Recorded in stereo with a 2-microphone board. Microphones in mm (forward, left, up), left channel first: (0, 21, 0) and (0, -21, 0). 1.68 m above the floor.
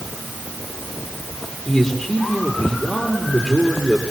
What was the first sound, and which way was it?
A man speaking, 5° left (ahead or behind).